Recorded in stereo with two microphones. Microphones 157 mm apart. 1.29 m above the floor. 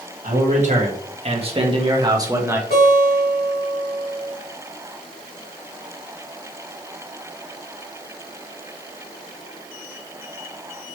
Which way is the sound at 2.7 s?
80° left.